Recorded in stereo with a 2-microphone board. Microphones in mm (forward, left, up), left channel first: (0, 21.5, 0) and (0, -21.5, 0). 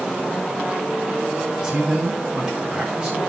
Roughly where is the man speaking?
Centre.